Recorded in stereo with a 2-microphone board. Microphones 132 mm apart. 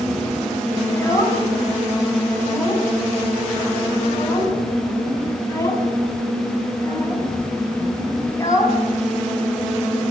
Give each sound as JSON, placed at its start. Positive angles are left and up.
{"t": 0.9, "sound": "a child speaking", "side_deg": 25, "distance_m": 6.5}